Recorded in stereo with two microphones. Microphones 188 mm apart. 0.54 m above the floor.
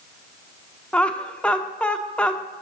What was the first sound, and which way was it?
Laughter, 5° left (ahead or behind).